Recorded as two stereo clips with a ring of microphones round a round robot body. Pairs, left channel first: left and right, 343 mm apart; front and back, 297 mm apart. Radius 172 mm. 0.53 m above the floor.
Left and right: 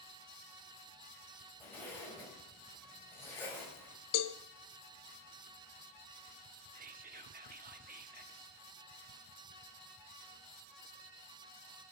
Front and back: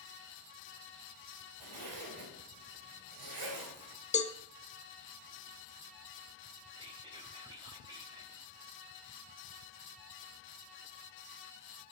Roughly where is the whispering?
Behind right.